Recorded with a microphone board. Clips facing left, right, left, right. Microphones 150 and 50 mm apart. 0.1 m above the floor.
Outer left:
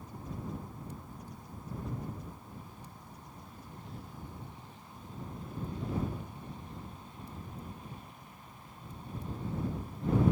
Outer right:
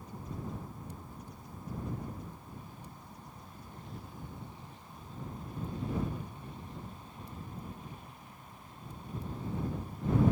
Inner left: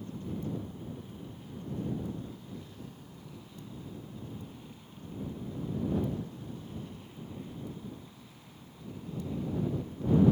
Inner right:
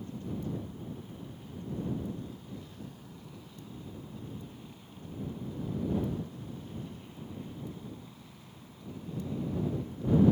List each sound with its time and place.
Only background noise.